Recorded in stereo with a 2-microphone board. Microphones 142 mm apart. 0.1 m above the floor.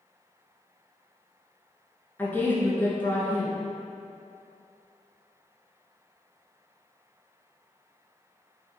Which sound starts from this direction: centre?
A woman speaking, at 2.2 s.